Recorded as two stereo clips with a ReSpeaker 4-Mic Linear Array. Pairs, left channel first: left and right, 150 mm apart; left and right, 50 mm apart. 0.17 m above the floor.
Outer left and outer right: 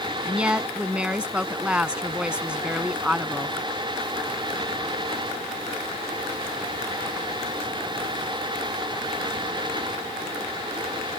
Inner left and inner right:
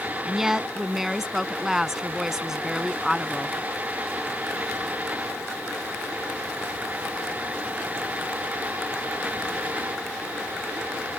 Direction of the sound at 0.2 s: 10° right (ahead or behind).